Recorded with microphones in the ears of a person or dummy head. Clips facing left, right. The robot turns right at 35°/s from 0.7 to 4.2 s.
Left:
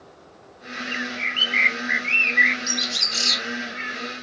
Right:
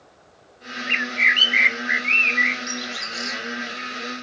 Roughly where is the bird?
Right.